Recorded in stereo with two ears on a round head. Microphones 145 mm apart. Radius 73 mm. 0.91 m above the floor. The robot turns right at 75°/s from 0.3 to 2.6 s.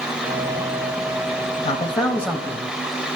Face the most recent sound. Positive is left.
turn(degrees=-160)